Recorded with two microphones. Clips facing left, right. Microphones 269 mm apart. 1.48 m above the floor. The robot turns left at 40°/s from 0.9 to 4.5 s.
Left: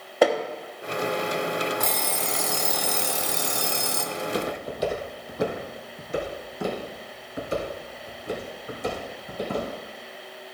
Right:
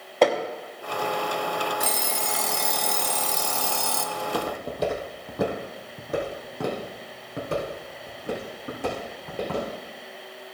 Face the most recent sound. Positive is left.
turn(degrees=-75)  # may be behind; listen again after turning